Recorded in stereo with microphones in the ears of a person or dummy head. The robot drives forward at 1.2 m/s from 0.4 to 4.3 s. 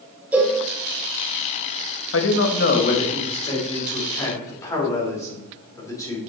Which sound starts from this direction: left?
A man speaking, at 2.1 s.